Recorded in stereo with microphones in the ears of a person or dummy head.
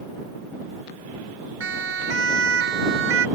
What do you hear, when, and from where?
1.6 s a siren: 85° right